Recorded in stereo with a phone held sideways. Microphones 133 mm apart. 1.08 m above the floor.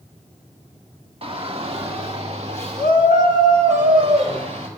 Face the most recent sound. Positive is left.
turn(degrees=-55)  # may be behind; listen again after turning